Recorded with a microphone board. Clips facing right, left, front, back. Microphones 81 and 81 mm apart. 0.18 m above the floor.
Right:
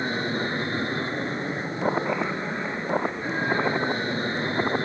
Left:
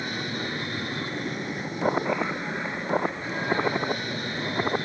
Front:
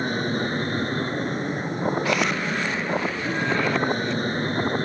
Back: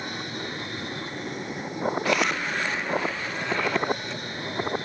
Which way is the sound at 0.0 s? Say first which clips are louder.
Right 5 dB, front 9 dB; 35° right.